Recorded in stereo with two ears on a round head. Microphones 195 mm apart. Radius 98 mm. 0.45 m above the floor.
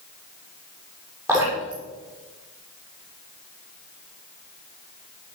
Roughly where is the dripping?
Centre.